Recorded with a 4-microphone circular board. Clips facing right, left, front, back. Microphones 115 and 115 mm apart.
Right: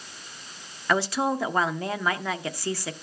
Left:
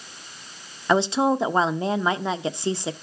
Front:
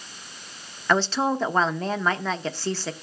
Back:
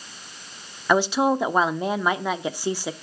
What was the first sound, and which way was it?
A woman speaking, 120° left.